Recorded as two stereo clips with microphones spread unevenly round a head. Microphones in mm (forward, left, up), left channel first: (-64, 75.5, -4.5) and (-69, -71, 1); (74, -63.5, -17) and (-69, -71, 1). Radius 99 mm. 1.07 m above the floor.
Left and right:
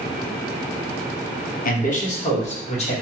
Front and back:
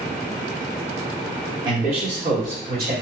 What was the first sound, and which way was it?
A man speaking, 115° left.